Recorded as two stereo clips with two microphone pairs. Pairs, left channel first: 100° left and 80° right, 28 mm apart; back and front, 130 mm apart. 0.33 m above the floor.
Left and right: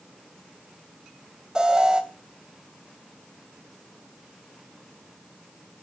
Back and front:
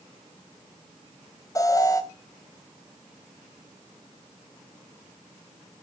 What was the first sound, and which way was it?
An alarm, 130° right.